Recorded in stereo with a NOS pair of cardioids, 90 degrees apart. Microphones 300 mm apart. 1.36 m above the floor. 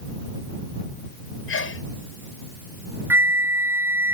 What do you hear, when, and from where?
1.5 s a sneeze: 45° left
3.1 s a flute: 5° right